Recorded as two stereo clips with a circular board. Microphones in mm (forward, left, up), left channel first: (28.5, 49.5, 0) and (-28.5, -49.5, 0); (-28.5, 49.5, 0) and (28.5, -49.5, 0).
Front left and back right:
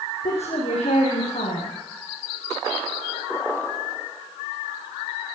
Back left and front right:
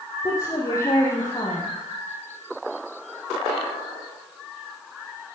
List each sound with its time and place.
0.2 s a woman speaking: 60° left, 4 m